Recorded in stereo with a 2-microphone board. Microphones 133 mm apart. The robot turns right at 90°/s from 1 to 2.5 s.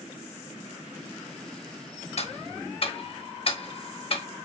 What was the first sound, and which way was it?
Ticking, 55° left (ahead or behind).